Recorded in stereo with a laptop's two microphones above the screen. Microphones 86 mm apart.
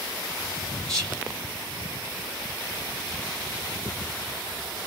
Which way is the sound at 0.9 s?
5° left (ahead or behind).